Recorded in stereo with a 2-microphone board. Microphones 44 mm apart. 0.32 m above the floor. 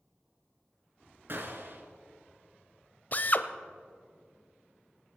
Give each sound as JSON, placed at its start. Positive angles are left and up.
{"t": 1.3, "sound": "a gunshot", "side_deg": -55, "distance_m": 1.8}
{"t": 3.1, "sound": "a drill", "side_deg": 40, "distance_m": 0.6}